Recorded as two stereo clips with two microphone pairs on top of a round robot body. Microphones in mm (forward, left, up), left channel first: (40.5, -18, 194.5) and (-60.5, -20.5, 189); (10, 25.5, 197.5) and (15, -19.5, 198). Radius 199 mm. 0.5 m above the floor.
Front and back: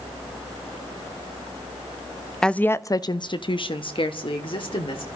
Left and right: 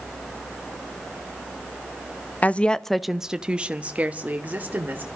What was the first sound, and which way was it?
A woman speaking, 90° left.